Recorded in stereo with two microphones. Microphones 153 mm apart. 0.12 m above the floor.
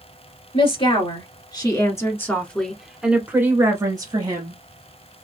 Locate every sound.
0.5 s a woman speaking: 35° left (ahead or behind), 2 m; by 4.6 s 35° right (ahead or behind), 1.6 m